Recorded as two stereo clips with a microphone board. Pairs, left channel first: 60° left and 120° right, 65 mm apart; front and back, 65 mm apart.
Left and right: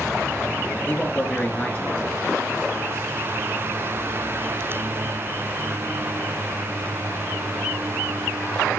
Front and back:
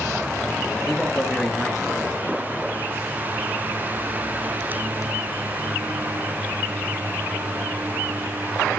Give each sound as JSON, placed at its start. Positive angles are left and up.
{"t": 0.8, "sound": "a man speaking", "azimuth_deg": 95, "distance_m": 1.8}